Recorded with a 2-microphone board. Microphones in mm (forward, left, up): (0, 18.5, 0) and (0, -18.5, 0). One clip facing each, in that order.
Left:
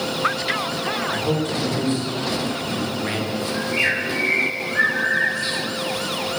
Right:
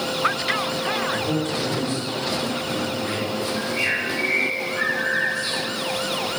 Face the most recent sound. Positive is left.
turn(degrees=60)  # may be behind; listen again after turning